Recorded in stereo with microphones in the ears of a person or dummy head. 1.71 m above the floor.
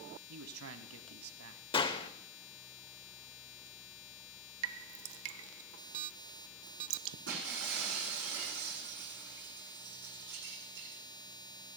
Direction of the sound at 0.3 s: 80° right.